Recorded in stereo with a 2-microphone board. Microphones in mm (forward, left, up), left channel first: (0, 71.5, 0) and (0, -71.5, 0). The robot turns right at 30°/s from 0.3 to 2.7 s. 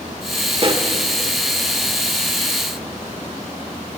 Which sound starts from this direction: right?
A pop, at 0.6 s.